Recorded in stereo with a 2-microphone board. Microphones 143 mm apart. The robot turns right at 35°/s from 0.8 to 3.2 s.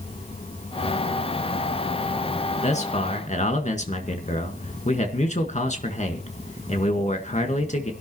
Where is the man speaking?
50° left (ahead or behind), 1.9 m.